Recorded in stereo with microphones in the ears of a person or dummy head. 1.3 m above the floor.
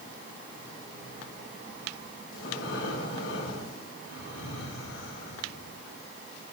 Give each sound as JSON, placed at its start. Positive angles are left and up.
{"t": 2.3, "sound": "breathing", "side_deg": 85, "distance_m": 2.0}